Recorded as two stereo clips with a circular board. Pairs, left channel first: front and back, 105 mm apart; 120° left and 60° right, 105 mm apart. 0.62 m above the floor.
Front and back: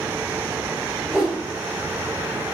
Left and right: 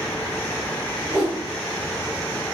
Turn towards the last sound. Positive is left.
turn(degrees=-100)